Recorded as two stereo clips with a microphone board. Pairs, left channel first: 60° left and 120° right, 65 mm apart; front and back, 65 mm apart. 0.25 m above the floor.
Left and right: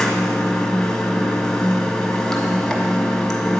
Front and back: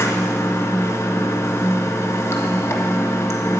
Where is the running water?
20° right, 1.6 m.